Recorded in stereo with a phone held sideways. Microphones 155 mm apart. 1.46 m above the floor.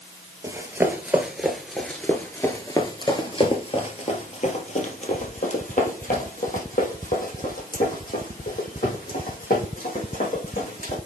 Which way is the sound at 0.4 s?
20° right (ahead or behind).